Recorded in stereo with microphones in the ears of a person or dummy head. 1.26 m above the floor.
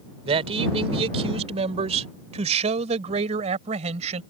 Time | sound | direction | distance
0.2 | a man speaking | 30° right (ahead or behind) | ?